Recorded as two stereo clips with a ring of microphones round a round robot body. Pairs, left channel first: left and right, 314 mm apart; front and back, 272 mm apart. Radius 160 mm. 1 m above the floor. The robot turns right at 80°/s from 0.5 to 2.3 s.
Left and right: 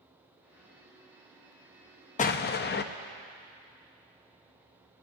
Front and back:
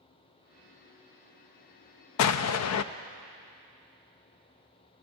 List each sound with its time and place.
2.2 s an explosion: 20° left, 0.5 m; by 2.9 s 30° left, 0.5 m